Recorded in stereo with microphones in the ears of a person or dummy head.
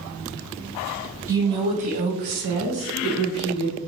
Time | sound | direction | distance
1.3 | a woman speaking | 20° right (ahead or behind) | 1.0 m